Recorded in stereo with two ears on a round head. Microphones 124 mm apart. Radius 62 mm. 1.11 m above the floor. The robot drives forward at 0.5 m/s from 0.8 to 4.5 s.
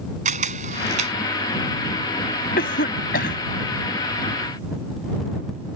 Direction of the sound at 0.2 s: 60° right (ahead or behind).